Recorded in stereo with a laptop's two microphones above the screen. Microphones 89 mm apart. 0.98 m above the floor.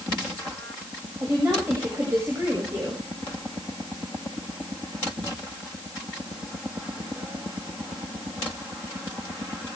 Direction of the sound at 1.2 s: 30° right (ahead or behind).